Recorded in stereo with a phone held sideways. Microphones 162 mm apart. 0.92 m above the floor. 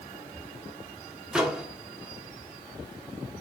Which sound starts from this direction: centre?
A microwave, at 1.3 s.